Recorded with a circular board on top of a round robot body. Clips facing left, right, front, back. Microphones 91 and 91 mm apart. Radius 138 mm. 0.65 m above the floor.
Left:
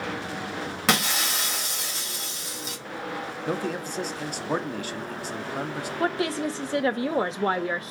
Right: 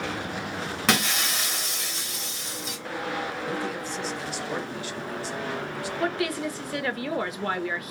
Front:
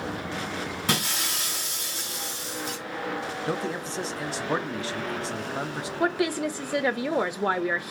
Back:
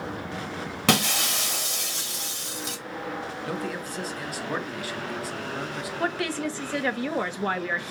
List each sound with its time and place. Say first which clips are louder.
0.9 s breaking glass: even, back 8 dB; straight behind, 1.3 m
3.5 s a man speaking: left 1 dB, front 2 dB; 60° left, 0.8 m
6.0 s a woman speaking: left 2 dB, front 3 dB; 60° left, 0.6 m